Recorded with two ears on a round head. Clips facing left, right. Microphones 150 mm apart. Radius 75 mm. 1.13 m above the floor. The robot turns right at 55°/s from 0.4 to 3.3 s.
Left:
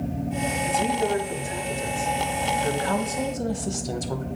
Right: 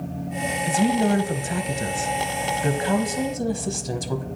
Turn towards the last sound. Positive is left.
turn(degrees=-5)